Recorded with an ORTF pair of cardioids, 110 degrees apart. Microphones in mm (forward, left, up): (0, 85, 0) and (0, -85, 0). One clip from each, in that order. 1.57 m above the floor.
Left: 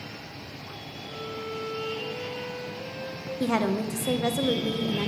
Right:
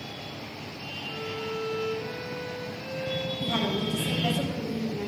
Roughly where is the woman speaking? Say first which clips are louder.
Left 5 dB; ahead left.